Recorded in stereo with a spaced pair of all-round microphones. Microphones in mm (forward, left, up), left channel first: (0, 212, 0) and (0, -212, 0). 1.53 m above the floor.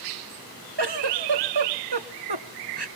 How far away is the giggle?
About 1.0 m.